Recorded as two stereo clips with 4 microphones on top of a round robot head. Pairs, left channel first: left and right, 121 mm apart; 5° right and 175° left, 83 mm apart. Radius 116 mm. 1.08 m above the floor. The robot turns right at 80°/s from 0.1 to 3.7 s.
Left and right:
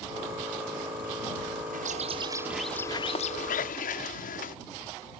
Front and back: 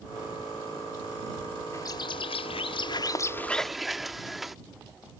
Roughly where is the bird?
Right.